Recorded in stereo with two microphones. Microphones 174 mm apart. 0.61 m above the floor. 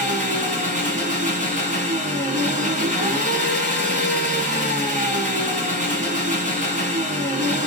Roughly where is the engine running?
Right.